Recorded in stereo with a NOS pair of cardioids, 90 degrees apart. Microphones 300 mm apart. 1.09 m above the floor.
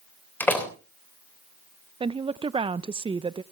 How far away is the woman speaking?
About 0.5 m.